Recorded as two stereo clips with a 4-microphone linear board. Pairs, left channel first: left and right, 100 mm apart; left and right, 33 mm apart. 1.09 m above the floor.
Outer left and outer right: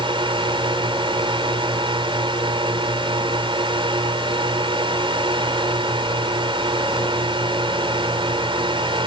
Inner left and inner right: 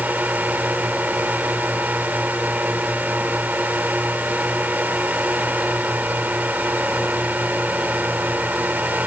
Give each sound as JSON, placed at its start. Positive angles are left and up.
{"t": 0.0, "sound": "a drone", "side_deg": -55}